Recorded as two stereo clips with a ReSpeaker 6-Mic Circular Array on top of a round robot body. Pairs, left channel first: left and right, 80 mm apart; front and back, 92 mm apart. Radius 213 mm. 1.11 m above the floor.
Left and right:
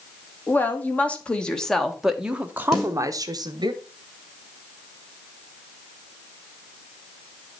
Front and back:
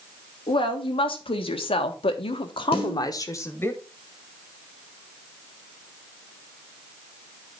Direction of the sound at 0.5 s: 25° left.